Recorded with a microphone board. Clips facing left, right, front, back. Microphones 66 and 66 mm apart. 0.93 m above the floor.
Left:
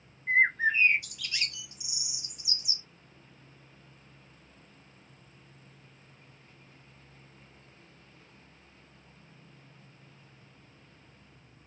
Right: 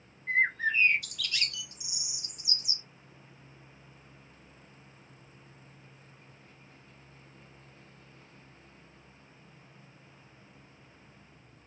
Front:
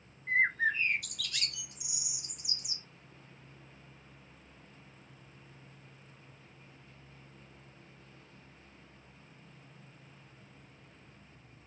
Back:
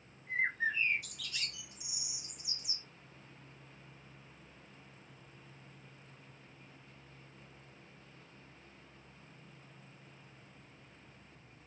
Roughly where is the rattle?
No rattle in this recording.